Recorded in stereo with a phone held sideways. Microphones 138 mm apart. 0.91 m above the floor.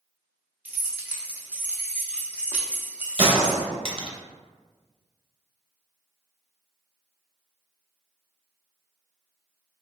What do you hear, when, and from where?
0.7 s keys jangling: 10° right (ahead or behind), 0.7 m
3.2 s a gunshot: 45° right (ahead or behind), 0.7 m